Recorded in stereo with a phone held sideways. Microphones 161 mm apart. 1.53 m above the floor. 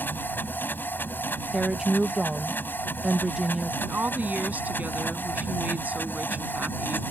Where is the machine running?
10° left (ahead or behind).